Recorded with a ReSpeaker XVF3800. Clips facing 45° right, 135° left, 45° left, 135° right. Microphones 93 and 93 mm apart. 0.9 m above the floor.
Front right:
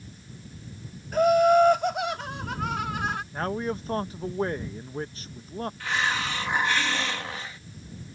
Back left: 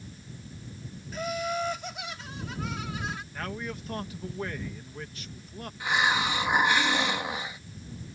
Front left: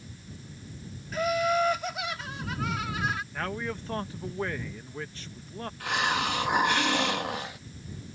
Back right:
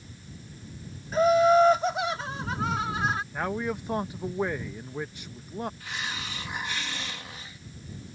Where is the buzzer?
No buzzer in this recording.